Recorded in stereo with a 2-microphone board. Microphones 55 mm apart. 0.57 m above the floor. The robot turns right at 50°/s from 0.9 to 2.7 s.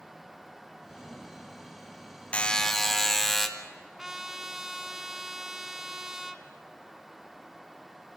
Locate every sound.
2.3 s a buzzer: 25° left (ahead or behind), 1.7 m; by 3.5 s 5° left (ahead or behind), 1.7 m
4.0 s a trumpet: 10° right (ahead or behind), 1.2 m